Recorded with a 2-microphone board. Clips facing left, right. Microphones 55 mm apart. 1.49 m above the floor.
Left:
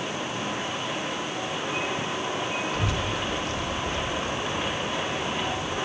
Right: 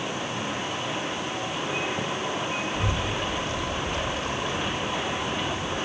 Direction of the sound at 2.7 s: 75° left (ahead or behind).